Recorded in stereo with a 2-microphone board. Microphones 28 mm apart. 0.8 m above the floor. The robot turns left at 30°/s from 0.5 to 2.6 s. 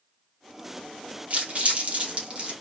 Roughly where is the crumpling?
Right.